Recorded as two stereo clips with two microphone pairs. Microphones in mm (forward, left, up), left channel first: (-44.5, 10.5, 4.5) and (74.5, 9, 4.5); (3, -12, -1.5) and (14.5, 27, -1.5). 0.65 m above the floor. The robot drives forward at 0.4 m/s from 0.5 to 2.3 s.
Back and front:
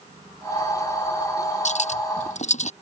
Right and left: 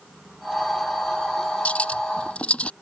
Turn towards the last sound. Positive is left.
turn(degrees=-165)